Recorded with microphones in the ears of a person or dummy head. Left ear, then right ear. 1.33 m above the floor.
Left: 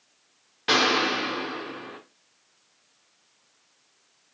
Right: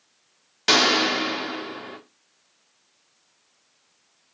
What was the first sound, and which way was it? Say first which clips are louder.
A gunshot: right 3 dB; 75° right (ahead or behind).